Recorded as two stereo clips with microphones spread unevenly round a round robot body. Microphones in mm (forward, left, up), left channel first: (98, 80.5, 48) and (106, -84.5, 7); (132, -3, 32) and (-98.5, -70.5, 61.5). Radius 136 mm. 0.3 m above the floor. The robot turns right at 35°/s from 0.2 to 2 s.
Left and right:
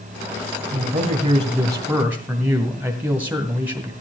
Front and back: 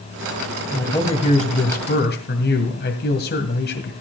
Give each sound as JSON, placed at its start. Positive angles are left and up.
{"t": 0.7, "sound": "a man speaking", "azimuth_deg": -65, "distance_m": 1.9}